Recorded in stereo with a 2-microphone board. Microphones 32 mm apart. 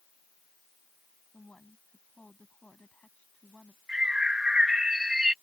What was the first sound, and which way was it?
A woman speaking, 40° left (ahead or behind).